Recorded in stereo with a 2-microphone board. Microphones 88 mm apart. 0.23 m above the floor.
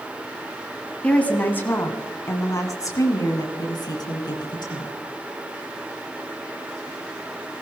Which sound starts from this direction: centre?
A woman speaking, at 1.0 s.